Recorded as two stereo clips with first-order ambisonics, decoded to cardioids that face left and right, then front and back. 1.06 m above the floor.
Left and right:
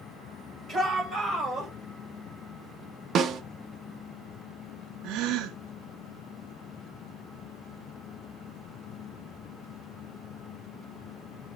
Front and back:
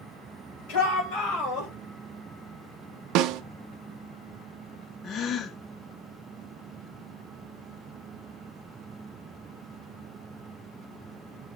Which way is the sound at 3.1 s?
150° right.